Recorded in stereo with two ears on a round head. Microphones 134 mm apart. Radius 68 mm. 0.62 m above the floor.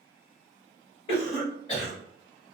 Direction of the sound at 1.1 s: 35° left (ahead or behind).